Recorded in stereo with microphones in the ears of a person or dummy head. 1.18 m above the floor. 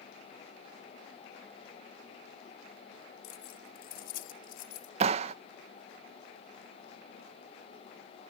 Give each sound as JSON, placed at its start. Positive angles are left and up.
{"t": 3.2, "sound": "keys jangling", "side_deg": 50}
{"t": 5.0, "sound": "a clap", "side_deg": -35}